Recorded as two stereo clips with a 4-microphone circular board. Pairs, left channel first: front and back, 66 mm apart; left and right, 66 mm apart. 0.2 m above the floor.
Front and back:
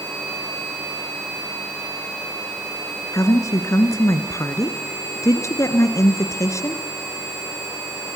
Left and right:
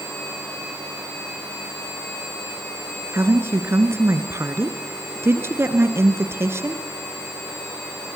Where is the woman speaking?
40° right, 2.5 m.